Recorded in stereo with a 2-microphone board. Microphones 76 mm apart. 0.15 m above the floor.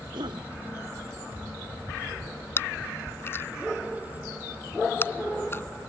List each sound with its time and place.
0.1 s a cough: 80° right
2.6 s chewing: 30° left (ahead or behind)